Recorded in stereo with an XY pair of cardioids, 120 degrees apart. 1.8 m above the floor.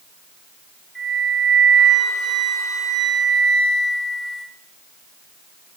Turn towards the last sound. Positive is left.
turn(degrees=-5)